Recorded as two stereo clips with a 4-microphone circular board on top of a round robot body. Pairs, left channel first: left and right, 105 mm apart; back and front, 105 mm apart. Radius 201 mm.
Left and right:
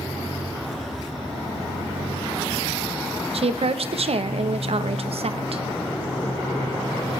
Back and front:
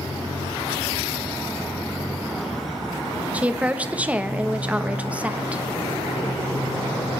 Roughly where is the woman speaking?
Right.